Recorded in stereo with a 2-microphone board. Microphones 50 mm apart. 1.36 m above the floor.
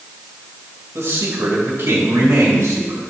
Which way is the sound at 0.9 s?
70° right (ahead or behind).